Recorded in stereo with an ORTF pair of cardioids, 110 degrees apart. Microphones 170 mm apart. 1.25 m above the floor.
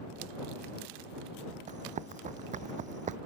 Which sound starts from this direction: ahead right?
Running footsteps, at 1.7 s.